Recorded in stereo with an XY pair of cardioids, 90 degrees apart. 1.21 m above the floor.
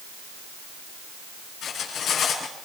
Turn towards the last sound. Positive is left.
turn(degrees=70)